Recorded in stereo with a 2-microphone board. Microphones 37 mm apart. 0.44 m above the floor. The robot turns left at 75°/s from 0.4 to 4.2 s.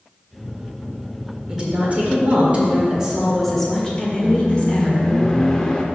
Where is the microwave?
25° left (ahead or behind), 0.7 m.